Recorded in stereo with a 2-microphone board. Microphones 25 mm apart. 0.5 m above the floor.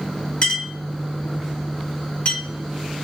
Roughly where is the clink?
Left.